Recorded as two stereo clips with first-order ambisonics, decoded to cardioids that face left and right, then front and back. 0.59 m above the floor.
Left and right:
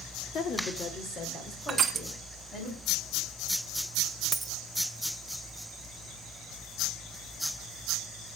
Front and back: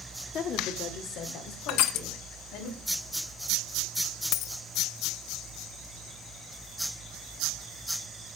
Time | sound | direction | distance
0.3 | a woman speaking | 45° left | 1.5 m
1.7 | crushing | 20° right | 1.2 m
4.3 | a dropped coin | 15° right | 0.5 m